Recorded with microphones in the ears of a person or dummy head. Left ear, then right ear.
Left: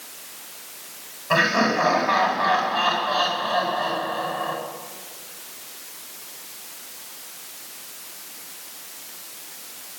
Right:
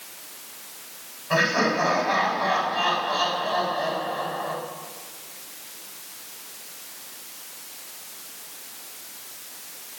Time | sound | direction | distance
1.3 | laughter | 20° left (ahead or behind) | 9.5 m